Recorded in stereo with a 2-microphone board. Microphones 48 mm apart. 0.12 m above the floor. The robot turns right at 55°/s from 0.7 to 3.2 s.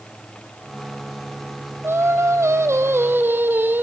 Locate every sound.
1.8 s singing: 120° right, 1.5 m; by 3.8 s 45° right, 1.5 m